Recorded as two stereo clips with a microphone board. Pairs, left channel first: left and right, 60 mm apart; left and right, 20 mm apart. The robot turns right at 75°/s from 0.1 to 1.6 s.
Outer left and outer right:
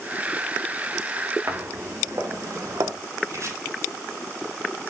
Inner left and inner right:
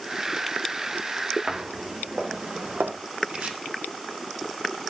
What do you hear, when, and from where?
1.5 s footsteps: 60° right (ahead or behind), 3 m; by 2.9 s 75° right (ahead or behind), 2.5 m
3.3 s chopping: 60° right (ahead or behind), 9 m